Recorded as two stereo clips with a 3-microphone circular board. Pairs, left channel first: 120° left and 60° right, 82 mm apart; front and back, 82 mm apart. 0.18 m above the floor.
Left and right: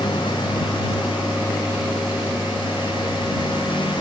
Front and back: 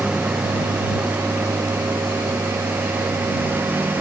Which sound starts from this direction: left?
A lawn mower, at 0.0 s.